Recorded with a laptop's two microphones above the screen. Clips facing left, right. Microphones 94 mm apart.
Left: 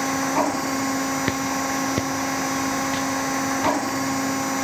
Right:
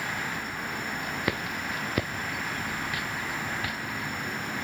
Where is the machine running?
85° left.